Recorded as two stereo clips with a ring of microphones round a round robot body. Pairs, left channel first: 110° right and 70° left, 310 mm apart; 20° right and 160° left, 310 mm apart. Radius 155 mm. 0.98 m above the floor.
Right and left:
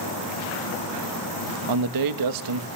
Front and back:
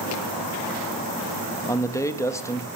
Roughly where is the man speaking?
Ahead left.